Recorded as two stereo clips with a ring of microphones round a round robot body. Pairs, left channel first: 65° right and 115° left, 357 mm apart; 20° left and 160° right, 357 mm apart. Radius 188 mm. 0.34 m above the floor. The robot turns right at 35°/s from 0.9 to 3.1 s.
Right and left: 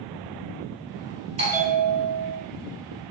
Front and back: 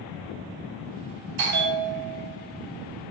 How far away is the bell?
About 3 m.